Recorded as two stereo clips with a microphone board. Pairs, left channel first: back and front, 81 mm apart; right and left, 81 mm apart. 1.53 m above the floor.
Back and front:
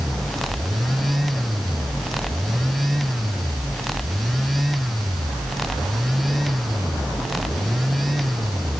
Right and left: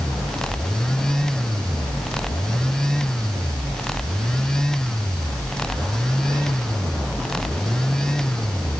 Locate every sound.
Only background noise.